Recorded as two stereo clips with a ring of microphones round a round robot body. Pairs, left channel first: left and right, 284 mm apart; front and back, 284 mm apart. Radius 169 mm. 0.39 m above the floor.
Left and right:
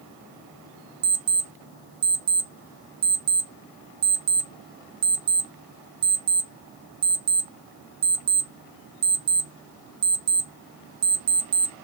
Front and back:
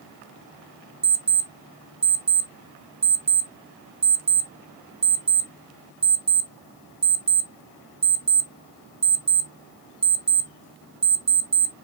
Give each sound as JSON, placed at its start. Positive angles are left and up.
{"t": 1.0, "sound": "an alarm clock", "azimuth_deg": -115, "distance_m": 0.8}